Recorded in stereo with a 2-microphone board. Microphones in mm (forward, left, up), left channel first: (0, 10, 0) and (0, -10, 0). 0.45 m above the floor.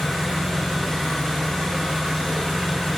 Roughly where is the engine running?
Left.